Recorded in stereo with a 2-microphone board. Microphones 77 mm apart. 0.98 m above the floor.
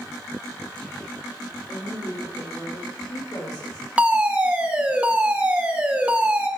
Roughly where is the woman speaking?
Left.